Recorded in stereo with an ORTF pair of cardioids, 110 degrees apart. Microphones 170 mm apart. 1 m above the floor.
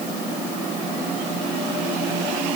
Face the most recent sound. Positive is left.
No sound to turn to.